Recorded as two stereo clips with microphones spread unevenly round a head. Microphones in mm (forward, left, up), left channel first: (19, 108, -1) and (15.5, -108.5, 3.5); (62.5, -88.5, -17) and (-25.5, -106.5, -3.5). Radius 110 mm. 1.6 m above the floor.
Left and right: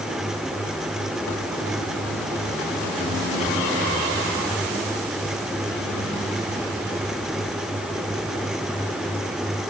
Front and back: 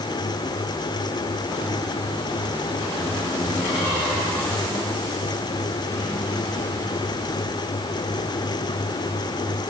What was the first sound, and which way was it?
Only background noise.